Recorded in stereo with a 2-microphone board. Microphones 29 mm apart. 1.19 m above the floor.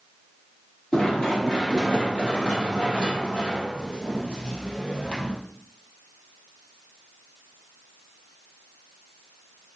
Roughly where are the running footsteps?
Left.